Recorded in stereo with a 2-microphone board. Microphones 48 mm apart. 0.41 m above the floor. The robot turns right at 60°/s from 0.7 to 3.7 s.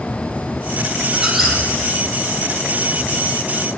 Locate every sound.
1.1 s a squeak: 15° right (ahead or behind), 4 m; by 1.6 s 10° left (ahead or behind), 4 m